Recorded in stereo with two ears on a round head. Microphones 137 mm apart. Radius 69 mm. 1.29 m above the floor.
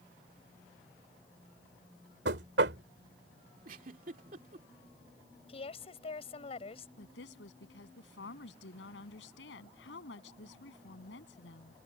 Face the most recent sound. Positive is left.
turn(degrees=85)